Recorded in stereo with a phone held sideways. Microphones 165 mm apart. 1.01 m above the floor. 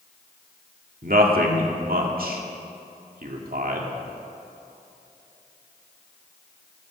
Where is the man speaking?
60° right (ahead or behind), 2 m.